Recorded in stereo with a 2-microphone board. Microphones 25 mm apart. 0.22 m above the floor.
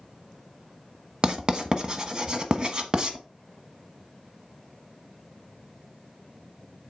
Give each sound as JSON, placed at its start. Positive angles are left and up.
{"t": 1.2, "sound": "writing", "side_deg": -35, "distance_m": 1.1}